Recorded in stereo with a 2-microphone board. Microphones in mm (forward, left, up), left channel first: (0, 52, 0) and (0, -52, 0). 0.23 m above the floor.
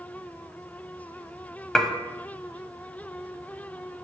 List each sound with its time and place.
1.8 s dishes clattering: 5° left (ahead or behind), 0.6 m